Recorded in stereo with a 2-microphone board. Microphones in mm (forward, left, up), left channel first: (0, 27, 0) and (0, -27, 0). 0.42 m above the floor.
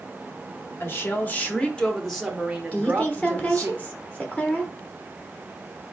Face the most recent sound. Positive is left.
turn(degrees=20)  # may be behind; listen again after turning